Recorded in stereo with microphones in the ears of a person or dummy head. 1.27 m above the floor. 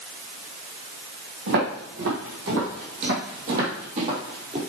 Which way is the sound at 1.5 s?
65° right (ahead or behind).